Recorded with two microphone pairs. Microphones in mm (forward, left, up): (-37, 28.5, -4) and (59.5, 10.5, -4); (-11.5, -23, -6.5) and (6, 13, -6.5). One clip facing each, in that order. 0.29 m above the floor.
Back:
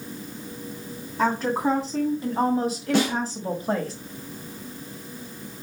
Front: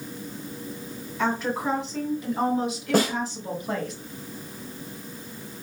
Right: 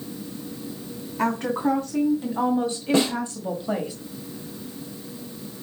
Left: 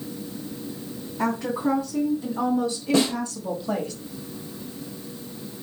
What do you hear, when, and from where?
1.2 s a woman speaking: 145° right, 2.5 m; by 3.9 s straight behind, 1.4 m
2.9 s a snare drum: 55° right, 2.5 m